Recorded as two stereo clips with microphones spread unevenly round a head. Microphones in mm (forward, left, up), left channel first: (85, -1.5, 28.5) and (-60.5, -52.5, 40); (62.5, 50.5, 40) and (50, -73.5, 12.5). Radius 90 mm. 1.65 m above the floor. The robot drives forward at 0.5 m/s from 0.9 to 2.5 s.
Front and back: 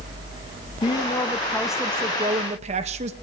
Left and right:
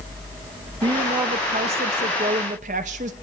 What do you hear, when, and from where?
0.8 s a woman speaking: 35° right, 0.7 m; by 3.1 s 140° right, 0.6 m